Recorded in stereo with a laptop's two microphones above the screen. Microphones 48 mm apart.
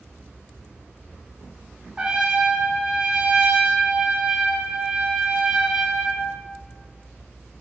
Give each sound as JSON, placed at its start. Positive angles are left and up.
{"t": 2.0, "sound": "a trumpet", "side_deg": -20, "distance_m": 0.6}